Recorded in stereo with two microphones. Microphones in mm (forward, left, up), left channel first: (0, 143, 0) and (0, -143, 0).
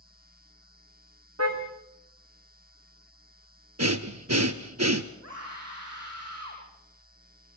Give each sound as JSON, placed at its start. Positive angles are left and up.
{"t": 1.4, "sound": "a car horn", "side_deg": -60, "distance_m": 5.5}
{"t": 3.8, "sound": "breathing", "side_deg": -65, "distance_m": 1.3}
{"t": 5.2, "sound": "a scream", "side_deg": -60, "distance_m": 6.5}